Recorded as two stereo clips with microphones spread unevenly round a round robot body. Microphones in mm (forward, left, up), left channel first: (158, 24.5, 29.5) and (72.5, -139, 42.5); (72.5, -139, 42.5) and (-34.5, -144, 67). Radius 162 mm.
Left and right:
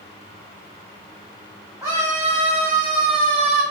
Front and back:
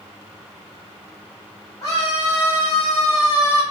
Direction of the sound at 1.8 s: 45° right.